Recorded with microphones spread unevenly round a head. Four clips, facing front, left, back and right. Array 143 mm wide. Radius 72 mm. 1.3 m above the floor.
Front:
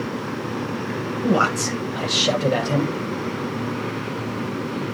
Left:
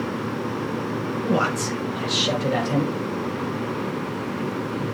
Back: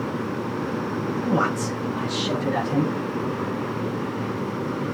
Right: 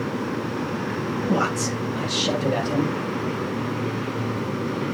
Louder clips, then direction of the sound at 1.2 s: Left 1 dB, front 4 dB; straight ahead.